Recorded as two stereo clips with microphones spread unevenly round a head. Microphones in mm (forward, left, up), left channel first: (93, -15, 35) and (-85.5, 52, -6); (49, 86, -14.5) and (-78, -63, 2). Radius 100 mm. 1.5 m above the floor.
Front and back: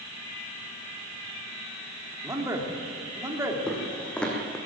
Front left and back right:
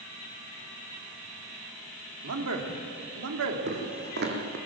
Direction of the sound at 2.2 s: 120° right.